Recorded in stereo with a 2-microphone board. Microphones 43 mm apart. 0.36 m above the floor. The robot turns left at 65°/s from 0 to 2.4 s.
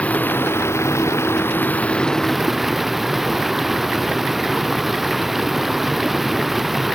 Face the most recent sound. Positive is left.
turn(degrees=-5)